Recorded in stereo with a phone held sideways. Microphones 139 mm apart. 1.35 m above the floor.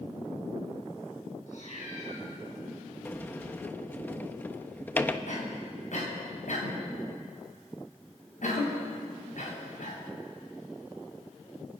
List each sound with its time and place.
1.5 s a cat meowing: 60° left (ahead or behind), 6.5 m
3.0 s a sliding door: 15° left (ahead or behind), 1.1 m
5.3 s a cough: 65° left (ahead or behind), 7 m